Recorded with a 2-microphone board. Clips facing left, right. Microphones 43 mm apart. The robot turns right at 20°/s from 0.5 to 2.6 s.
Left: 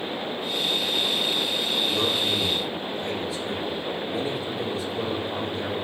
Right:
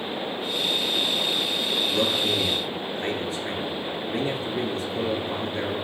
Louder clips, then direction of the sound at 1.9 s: Right 1 dB; 40° right (ahead or behind).